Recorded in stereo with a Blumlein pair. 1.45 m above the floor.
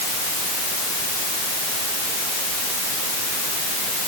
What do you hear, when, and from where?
Only background noise.